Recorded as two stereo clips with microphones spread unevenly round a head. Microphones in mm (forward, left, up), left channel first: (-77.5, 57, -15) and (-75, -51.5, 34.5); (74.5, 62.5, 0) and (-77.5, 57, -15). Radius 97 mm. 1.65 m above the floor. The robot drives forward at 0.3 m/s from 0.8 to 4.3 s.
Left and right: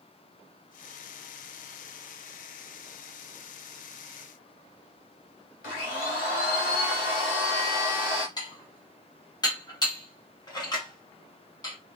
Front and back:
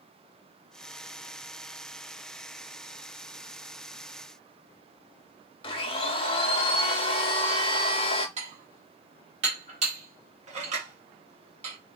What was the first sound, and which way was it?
A blender, 50° left.